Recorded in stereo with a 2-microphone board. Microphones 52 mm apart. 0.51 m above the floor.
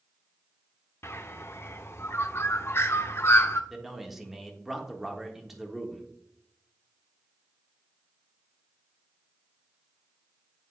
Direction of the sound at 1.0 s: 50° left (ahead or behind).